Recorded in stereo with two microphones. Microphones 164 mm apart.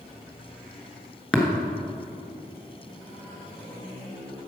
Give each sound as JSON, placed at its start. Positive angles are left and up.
{"t": 1.3, "sound": "tapping", "side_deg": 5, "distance_m": 1.3}